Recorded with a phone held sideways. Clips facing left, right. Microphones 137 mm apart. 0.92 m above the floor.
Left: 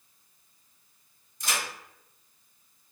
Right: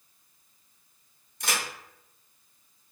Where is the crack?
65° right (ahead or behind), 1.3 m.